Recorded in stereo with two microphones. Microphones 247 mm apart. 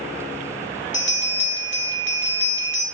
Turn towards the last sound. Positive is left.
turn(degrees=50)  # may be behind; listen again after turning